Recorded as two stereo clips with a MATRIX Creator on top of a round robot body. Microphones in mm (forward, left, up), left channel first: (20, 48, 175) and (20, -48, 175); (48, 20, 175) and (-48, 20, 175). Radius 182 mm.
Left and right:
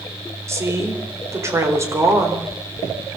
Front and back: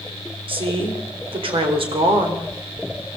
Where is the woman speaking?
150° right, 4 m.